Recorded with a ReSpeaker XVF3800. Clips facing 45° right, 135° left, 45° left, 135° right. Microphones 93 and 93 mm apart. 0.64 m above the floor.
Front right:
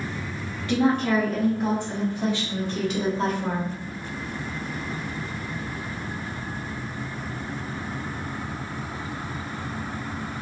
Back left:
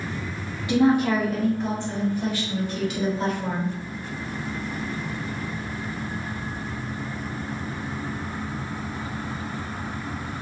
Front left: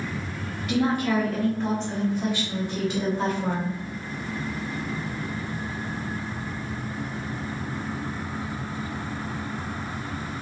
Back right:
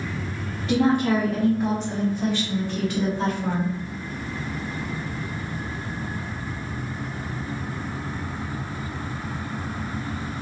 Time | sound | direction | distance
0.7 | a woman speaking | 165° right | 0.9 m